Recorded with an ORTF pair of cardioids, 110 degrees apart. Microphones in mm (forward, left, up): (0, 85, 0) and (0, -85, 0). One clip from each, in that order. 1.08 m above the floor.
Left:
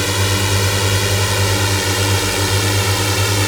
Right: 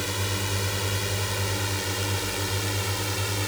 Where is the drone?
60° left.